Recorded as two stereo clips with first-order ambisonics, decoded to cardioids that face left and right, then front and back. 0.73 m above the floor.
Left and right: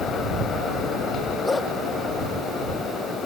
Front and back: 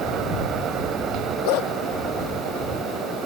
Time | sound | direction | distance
1.4 | a dog barking | 10° left | ?